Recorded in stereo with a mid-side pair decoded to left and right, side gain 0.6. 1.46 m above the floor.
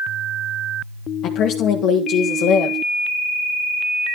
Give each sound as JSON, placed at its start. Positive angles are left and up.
{"t": 1.2, "sound": "a woman speaking", "azimuth_deg": 60, "distance_m": 1.2}